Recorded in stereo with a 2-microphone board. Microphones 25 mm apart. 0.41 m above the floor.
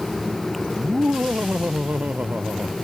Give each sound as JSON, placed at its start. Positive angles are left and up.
{"t": 0.8, "sound": "laughter", "side_deg": -75}